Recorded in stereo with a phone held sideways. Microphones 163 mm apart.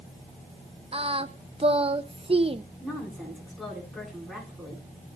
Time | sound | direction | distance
0.9 | singing | 35° right (ahead or behind) | 0.6 m
2.8 | a woman speaking | centre (ahead or behind) | 8.5 m